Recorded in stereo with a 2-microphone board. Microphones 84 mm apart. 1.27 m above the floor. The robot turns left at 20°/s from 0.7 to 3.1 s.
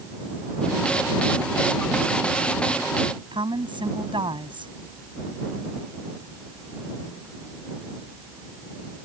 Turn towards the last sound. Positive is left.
turn(degrees=-80)